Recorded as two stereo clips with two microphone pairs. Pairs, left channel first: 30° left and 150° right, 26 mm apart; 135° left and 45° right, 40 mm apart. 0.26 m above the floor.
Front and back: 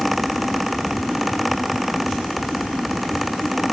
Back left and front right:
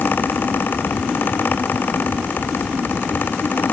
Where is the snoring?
No snoring in this recording.